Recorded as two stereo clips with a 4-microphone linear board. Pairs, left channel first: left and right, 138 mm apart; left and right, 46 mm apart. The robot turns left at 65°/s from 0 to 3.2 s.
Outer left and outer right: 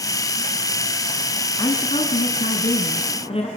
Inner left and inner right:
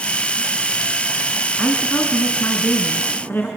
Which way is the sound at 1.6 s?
150° left.